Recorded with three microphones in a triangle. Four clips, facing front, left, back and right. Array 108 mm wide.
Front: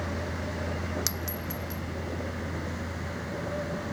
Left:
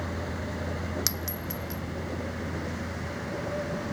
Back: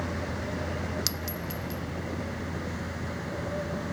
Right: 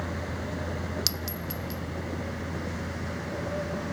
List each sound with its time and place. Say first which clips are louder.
1.1 s a clink: even, even; 60° left, 0.6 m